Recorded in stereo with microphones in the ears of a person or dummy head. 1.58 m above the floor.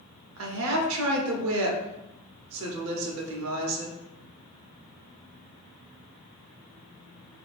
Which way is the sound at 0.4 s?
75° right (ahead or behind).